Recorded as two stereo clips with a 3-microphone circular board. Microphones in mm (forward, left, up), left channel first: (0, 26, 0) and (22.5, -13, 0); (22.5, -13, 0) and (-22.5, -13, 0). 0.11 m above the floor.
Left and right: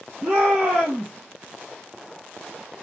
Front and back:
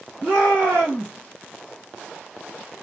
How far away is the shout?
About 3 m.